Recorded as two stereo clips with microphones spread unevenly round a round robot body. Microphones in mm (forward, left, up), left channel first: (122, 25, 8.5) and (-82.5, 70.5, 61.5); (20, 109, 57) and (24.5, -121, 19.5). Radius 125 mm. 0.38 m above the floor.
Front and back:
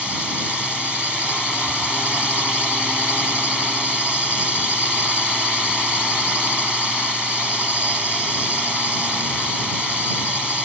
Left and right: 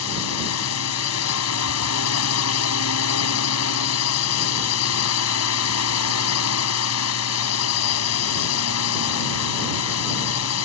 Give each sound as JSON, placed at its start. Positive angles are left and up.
{"t": 0.0, "sound": "a drone", "azimuth_deg": 75}